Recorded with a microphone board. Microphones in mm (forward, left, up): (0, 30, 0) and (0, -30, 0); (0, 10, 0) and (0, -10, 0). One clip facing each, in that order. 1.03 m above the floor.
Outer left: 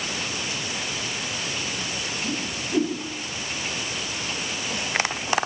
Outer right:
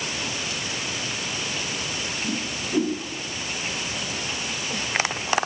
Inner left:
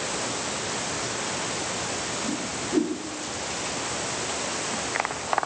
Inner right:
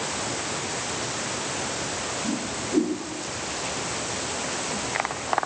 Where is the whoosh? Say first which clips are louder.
Outer right 1 dB, inner right 1 dB; 5° left (ahead or behind), 2 m.